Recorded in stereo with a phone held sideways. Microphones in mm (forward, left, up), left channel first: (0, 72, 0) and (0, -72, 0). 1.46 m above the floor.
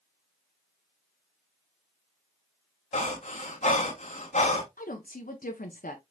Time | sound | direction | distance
2.9 | breathing | 55° left (ahead or behind) | 1.5 m
4.8 | a woman speaking | 85° left | 0.8 m